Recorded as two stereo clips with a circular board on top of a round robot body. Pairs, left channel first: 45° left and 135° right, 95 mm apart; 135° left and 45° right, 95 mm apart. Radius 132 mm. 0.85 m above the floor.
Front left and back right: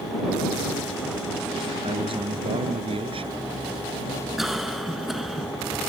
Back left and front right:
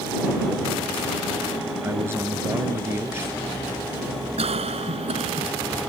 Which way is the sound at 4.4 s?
50° right.